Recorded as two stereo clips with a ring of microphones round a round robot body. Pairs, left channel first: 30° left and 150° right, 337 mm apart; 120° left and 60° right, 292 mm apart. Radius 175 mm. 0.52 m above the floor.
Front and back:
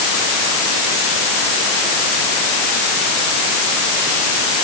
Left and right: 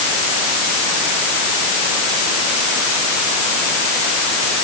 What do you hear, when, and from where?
Only background noise.